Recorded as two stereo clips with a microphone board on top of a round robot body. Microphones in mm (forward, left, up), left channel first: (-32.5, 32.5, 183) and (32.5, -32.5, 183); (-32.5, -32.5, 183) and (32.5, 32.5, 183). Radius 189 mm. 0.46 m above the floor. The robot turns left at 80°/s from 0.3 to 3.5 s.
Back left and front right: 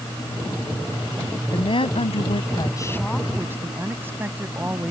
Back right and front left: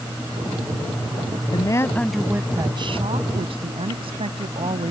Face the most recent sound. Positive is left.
turn(degrees=25)